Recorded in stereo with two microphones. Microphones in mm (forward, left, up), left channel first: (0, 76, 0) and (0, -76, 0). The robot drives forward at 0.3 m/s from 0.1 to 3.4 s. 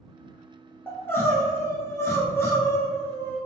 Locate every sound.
0.9 s crying: 15° left (ahead or behind), 0.8 m